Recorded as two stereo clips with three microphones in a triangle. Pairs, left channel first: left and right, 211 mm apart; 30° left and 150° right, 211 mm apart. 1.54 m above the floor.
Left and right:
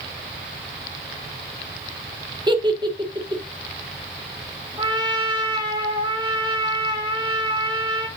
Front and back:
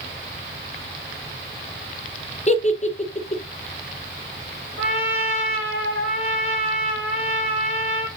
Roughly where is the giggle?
Ahead right.